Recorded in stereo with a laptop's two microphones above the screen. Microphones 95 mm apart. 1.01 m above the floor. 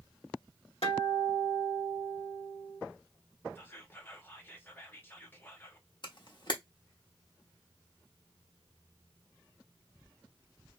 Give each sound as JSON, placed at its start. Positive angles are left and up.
{"t": 0.8, "sound": "a guitar", "side_deg": 80, "distance_m": 1.4}
{"t": 3.5, "sound": "whispering", "side_deg": 25, "distance_m": 0.8}
{"t": 6.0, "sound": "a camera shutter", "side_deg": 50, "distance_m": 0.8}